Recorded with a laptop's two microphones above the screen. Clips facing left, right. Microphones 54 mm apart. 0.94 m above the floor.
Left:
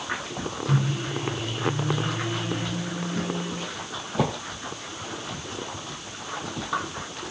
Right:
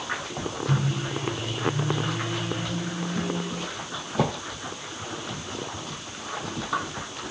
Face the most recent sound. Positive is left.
turn(degrees=0)  # may be behind; listen again after turning